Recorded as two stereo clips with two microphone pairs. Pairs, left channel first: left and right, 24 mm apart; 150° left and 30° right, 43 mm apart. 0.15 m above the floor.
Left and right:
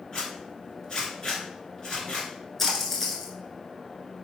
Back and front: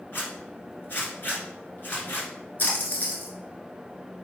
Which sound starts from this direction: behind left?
A zipper, at 0.1 s.